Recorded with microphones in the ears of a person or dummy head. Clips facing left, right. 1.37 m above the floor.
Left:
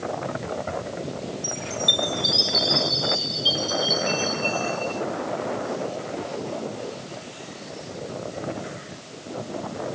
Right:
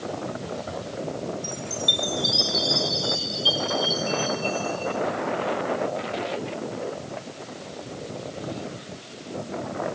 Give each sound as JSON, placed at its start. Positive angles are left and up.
{"t": 1.4, "sound": "a chime", "side_deg": -5}